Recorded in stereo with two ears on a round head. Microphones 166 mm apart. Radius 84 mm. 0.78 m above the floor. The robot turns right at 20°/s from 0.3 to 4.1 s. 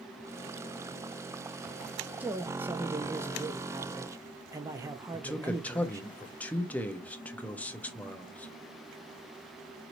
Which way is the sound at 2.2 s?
10° right (ahead or behind).